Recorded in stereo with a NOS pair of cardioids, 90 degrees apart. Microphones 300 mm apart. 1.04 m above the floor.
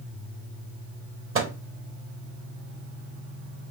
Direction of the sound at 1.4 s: 45° right.